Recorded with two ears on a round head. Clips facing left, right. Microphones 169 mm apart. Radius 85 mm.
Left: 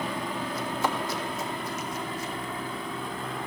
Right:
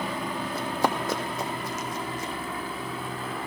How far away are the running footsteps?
About 1.5 m.